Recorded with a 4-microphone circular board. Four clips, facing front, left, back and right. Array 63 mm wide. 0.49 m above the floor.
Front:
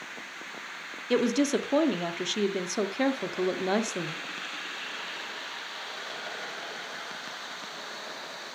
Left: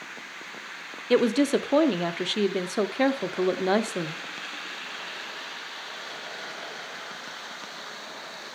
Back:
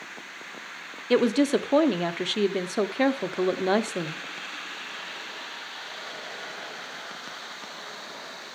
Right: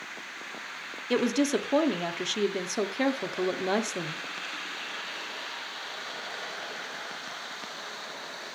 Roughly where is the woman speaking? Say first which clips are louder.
Left 4 dB, back 4 dB; behind left.